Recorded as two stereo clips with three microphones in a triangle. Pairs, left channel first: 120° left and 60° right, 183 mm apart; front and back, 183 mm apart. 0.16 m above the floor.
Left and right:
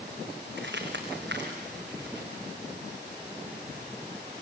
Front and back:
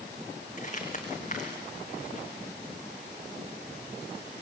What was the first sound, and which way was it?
Crumpling, 50° right.